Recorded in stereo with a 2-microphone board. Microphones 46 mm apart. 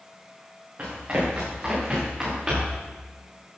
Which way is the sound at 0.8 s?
35° right (ahead or behind).